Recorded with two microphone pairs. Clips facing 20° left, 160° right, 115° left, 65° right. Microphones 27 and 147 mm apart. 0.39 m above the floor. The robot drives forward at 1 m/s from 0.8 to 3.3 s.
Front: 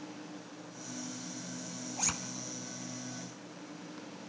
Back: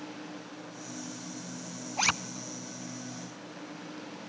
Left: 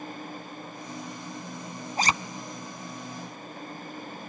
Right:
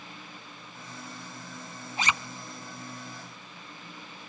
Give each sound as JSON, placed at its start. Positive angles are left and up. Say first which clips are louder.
{"t": 2.0, "sound": "a zipper", "louder": "back 10 dB, left 4 dB", "azimuth_deg": 160, "distance_m": 0.8}